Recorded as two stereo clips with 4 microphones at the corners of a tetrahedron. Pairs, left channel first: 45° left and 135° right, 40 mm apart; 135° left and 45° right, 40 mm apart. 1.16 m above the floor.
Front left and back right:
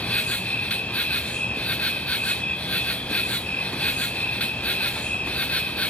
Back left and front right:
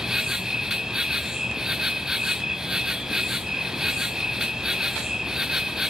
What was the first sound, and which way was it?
An insect, 20° left.